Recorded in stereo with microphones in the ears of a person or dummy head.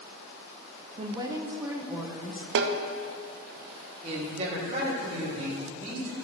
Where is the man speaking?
35° right (ahead or behind), 2 m.